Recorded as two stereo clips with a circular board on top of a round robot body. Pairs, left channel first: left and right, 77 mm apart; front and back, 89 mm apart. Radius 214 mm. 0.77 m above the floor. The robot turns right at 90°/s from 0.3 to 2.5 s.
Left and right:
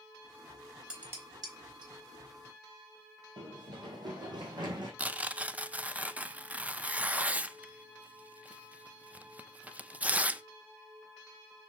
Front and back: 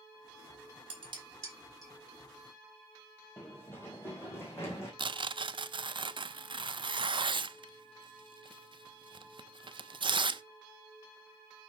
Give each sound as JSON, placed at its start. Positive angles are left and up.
{"t": 0.9, "sound": "dishes clattering", "azimuth_deg": -175, "distance_m": 3.5}
{"t": 3.4, "sound": "running footsteps", "azimuth_deg": -70, "distance_m": 1.5}
{"t": 5.0, "sound": "tearing paper", "azimuth_deg": -160, "distance_m": 0.7}